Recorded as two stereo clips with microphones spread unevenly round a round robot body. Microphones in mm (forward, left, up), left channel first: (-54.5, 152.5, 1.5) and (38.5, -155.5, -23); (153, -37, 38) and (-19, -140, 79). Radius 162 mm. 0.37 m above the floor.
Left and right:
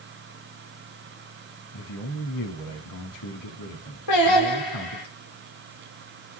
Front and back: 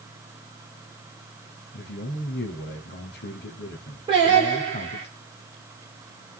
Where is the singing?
135° left, 9.5 m.